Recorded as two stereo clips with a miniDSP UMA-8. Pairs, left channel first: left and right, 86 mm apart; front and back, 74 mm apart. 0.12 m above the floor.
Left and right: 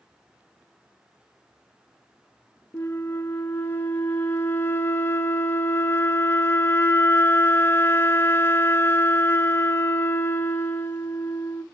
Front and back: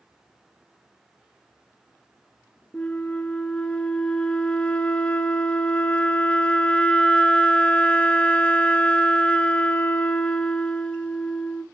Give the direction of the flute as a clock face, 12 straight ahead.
10 o'clock.